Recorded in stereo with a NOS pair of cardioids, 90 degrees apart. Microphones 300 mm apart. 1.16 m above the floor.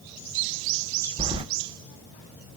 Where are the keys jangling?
15° right, 0.6 m.